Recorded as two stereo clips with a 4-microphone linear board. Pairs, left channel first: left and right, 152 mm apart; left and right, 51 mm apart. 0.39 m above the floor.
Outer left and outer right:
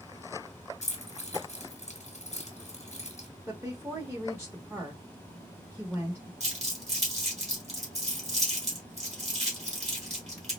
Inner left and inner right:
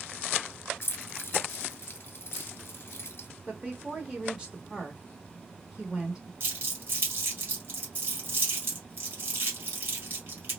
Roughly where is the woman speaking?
Centre.